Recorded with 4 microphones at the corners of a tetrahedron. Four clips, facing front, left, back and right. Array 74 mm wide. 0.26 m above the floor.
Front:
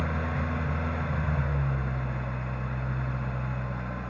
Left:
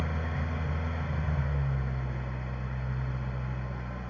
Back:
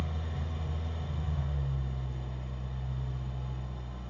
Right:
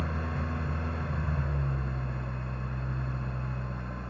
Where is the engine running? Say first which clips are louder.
Right 1 dB, front 9 dB; 10° right, 0.8 m.